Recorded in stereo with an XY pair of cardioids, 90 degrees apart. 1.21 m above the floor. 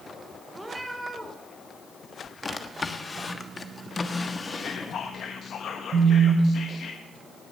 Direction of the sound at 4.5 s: 65° left.